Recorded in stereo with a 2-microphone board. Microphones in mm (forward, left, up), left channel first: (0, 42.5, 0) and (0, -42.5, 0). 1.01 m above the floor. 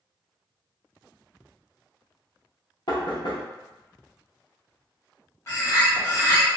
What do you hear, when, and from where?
2.9 s knocking: 60° left (ahead or behind), 0.7 m
5.5 s a bird: 30° left (ahead or behind), 1.2 m